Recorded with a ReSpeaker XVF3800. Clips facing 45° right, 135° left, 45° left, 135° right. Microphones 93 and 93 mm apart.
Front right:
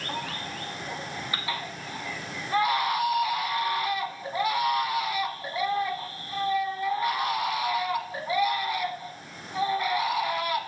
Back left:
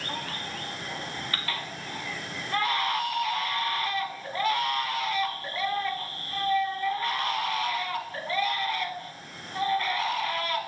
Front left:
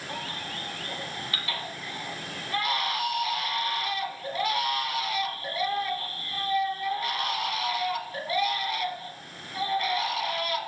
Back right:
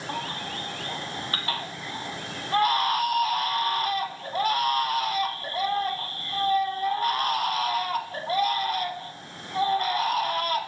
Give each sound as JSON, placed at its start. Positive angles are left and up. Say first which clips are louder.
{"t": 0.1, "sound": "a baby crying", "louder": "front right 2 dB, back right 4 dB", "azimuth_deg": -115, "distance_m": 0.9}